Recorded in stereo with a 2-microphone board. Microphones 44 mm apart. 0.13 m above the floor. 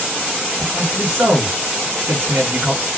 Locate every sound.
0.6 s a man speaking: 60° right (ahead or behind), 3 m